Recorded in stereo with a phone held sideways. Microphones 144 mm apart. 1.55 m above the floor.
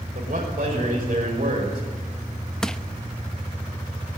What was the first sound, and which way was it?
A man speaking, 80° right.